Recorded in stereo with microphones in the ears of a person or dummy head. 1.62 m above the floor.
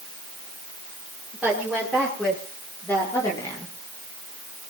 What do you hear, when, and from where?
1.3 s a woman speaking: centre (ahead or behind), 6.5 m; by 3.7 s 25° left (ahead or behind), 4.5 m